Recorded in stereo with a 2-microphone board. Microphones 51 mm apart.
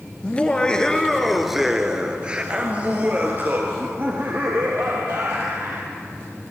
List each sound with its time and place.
0.2 s laughter: 25° left (ahead or behind), 1.6 m; by 5.9 s 55° right (ahead or behind), 3.5 m